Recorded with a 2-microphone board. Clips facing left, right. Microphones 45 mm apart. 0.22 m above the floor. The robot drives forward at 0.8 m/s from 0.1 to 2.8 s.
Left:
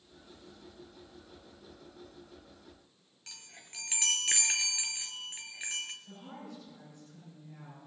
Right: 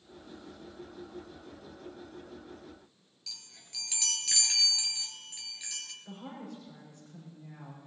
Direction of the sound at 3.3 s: 45° left (ahead or behind).